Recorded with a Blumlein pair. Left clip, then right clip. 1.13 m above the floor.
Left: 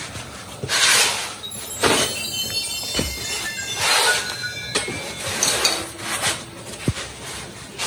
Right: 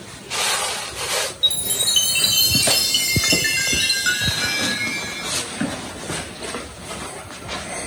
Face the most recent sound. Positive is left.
turn(degrees=-50)